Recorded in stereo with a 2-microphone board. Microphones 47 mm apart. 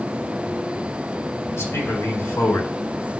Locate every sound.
1.5 s a man speaking: 75° left (ahead or behind), 3.5 m